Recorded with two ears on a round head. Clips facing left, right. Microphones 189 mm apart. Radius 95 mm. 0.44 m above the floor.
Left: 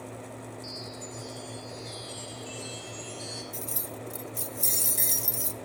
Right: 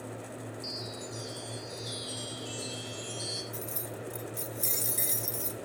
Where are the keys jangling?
5° left (ahead or behind), 0.6 m.